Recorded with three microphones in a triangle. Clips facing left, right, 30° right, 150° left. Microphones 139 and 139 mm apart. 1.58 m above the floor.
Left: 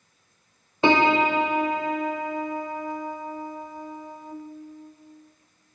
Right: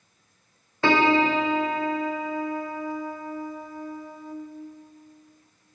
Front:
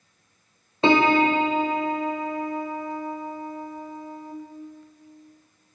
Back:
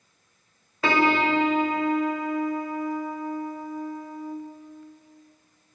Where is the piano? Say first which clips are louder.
Left 1 dB, front 4 dB; 25° left, 0.6 m.